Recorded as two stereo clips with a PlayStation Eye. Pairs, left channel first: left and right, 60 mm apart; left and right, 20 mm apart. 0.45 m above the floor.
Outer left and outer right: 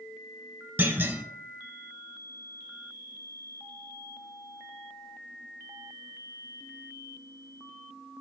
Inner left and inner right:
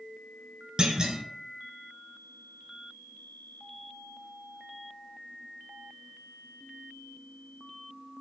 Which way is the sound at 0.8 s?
35° right (ahead or behind).